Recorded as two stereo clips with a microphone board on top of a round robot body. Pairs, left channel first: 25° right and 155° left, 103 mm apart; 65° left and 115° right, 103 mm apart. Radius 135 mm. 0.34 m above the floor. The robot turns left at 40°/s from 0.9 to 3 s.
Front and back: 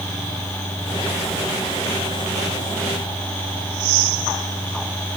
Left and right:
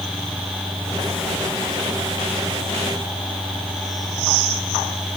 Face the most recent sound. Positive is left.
No sound to turn to.